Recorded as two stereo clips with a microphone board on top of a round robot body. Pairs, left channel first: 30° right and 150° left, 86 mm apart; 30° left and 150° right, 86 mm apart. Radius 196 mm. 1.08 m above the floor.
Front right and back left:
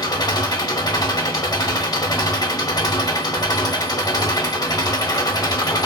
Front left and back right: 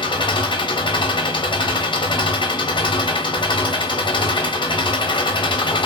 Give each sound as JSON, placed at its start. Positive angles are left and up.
{"t": 0.0, "sound": "an engine running", "azimuth_deg": 10, "distance_m": 0.9}